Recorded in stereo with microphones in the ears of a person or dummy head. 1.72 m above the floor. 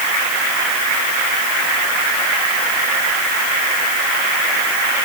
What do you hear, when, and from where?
Only background noise.